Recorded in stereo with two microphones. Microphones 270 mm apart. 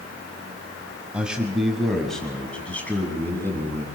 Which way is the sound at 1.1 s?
5° right (ahead or behind).